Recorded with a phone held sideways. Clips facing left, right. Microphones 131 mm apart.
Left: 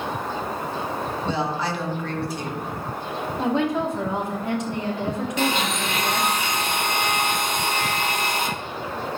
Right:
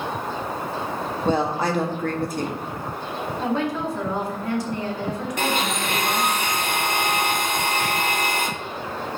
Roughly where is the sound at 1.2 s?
Right.